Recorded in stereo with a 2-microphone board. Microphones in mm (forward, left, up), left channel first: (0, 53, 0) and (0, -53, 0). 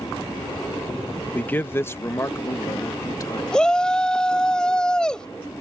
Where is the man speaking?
15° left (ahead or behind); by 3.4 s 35° left (ahead or behind).